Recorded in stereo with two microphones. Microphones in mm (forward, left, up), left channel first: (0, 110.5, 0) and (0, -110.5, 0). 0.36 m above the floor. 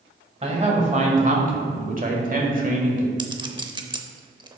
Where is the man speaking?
30° right (ahead or behind), 1.9 m; by 3.1 s 35° right (ahead or behind), 1.5 m.